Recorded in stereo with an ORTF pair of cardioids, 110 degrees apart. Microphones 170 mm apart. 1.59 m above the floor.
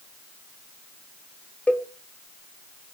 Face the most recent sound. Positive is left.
turn(degrees=10)